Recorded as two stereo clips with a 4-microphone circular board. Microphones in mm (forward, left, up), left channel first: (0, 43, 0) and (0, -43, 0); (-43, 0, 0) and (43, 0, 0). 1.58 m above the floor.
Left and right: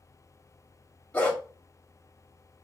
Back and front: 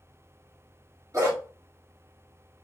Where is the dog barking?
20° left, 1.3 m.